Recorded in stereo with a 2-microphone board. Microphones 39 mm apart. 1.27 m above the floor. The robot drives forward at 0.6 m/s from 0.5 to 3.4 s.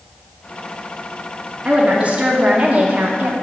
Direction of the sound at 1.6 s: 30° right (ahead or behind).